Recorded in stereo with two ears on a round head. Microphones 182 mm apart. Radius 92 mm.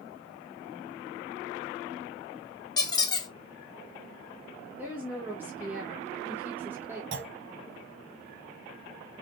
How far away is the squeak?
About 0.6 m.